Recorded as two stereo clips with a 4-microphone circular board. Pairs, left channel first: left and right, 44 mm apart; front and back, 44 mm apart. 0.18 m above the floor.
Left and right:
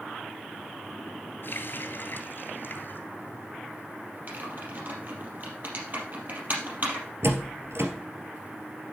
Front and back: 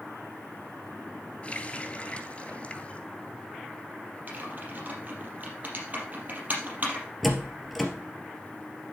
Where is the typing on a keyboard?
130° right, 4 m.